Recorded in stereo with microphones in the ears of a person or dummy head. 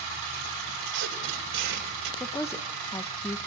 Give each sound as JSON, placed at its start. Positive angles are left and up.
{"t": 0.8, "sound": "tape being pulled", "side_deg": -60, "distance_m": 3.5}
{"t": 2.2, "sound": "a woman speaking", "side_deg": 15, "distance_m": 0.9}